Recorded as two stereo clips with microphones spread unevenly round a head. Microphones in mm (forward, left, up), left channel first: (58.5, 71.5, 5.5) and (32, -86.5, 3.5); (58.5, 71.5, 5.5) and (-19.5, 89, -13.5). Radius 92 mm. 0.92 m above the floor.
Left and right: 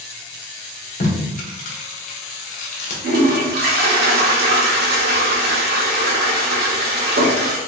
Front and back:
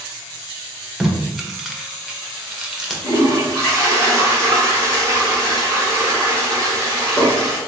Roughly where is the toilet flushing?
Right.